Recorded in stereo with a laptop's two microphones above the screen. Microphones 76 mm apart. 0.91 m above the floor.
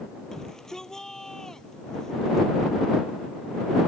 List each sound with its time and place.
0.3 s a shout: 5° left (ahead or behind)